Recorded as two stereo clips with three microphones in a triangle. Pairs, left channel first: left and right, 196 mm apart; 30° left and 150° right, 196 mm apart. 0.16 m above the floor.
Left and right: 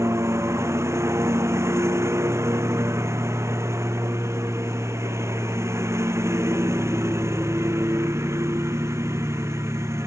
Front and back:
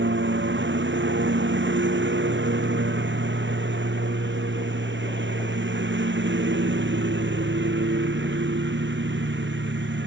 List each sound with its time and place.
0.0 s a lawn mower: 165° right